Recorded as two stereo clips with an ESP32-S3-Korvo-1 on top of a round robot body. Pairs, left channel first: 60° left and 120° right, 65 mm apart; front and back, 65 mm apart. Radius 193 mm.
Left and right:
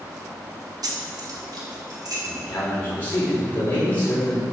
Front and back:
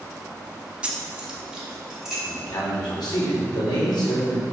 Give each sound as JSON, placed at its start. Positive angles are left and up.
{"t": 0.8, "sound": "keys jangling", "azimuth_deg": -110, "distance_m": 1.0}
{"t": 2.2, "sound": "a man speaking", "azimuth_deg": -5, "distance_m": 3.0}